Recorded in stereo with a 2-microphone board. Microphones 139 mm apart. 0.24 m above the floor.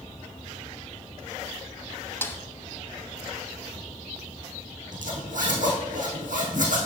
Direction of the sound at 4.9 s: 70° right (ahead or behind).